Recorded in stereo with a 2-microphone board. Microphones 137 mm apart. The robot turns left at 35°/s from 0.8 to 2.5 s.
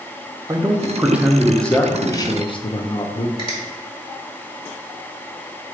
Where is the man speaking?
160° right, 0.6 m; by 3.3 s 140° left, 0.6 m.